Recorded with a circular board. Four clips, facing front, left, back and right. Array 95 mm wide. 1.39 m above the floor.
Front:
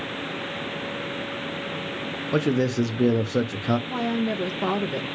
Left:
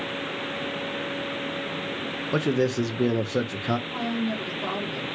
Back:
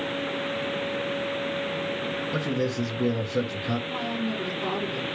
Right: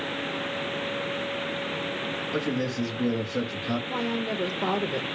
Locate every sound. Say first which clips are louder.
2.3 s a man speaking: left 6 dB, front 7 dB; 35° left, 0.9 m
3.9 s a woman speaking: left 1 dB, front 4 dB; 30° right, 1.1 m